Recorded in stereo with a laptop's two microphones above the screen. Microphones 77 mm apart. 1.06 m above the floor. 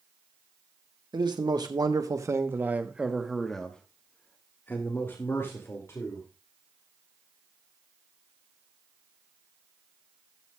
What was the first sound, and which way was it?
A man speaking, 65° right (ahead or behind).